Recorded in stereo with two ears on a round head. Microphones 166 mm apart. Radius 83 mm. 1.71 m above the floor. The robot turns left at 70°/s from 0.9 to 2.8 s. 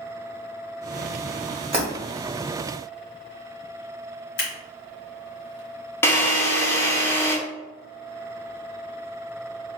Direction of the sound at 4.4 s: 70° left (ahead or behind).